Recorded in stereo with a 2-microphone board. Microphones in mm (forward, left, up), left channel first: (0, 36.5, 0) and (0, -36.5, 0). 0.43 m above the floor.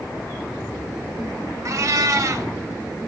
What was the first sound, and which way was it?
A cat meowing, 45° right (ahead or behind).